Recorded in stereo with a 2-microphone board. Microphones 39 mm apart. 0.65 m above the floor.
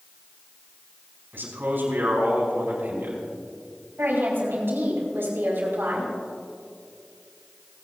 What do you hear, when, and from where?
1.3 s a man speaking: 65° right (ahead or behind), 5 m
4.0 s a woman speaking: 75° right (ahead or behind), 5 m